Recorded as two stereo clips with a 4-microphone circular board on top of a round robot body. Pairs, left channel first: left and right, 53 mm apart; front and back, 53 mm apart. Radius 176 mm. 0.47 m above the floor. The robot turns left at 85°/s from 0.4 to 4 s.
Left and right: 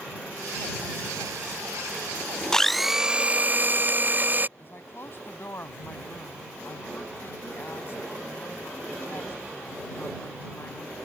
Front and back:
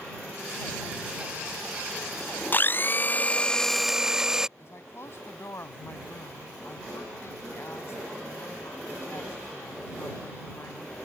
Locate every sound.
2.5 s a blender: 20° left; by 4.5 s 105° right
4.6 s a woman speaking: 45° left